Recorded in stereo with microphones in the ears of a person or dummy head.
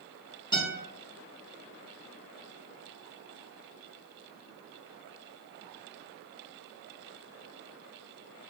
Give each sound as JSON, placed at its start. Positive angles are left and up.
{"t": 0.5, "sound": "a guitar", "side_deg": 25, "distance_m": 1.3}